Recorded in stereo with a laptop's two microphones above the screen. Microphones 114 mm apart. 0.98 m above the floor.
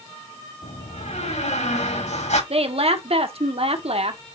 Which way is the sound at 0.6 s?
85° left.